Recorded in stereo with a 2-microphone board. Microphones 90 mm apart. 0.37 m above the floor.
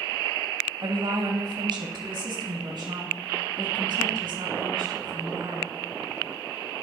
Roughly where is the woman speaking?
Right.